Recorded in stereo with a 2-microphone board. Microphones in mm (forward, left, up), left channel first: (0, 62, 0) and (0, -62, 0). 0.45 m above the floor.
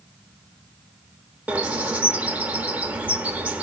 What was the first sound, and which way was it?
A bird, 10° right (ahead or behind).